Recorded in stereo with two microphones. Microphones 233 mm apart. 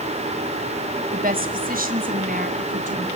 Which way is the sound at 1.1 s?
35° right (ahead or behind).